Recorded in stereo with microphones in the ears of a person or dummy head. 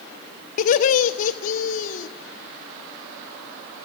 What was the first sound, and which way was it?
Laughter, 45° left (ahead or behind).